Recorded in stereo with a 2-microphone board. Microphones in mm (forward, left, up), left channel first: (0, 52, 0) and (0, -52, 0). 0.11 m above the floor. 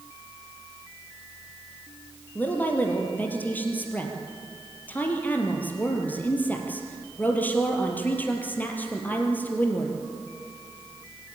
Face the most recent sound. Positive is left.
turn(degrees=15)  # may be behind; listen again after turning